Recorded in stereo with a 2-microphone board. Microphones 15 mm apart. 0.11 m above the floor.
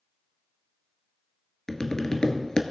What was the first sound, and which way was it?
Tapping, 45° left (ahead or behind).